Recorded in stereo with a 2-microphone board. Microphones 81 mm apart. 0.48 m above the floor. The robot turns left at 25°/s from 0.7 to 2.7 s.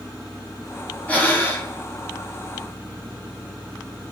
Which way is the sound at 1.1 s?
20° left (ahead or behind).